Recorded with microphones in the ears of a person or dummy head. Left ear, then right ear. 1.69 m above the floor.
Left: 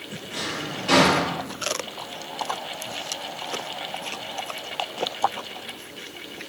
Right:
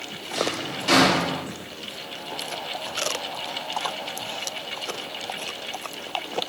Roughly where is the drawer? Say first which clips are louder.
Right 3 dB; right.